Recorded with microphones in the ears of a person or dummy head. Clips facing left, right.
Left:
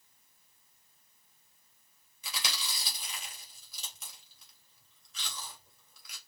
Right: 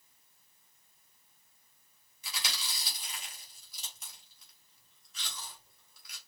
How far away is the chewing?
About 2.0 m.